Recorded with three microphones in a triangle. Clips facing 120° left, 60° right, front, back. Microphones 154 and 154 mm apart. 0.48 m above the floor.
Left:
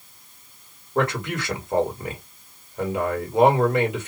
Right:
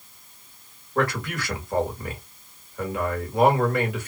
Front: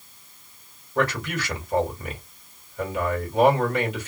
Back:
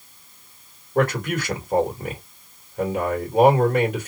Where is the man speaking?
Straight behind, 2.0 m.